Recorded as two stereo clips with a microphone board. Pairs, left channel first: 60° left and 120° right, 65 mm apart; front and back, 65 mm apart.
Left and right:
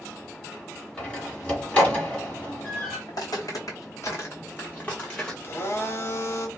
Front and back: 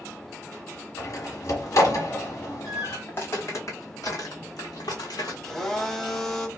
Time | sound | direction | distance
1.0 | a door slam | 5° right | 1.2 m
3.1 | footsteps | 55° left | 1.0 m
5.4 | a blender | 80° left | 0.6 m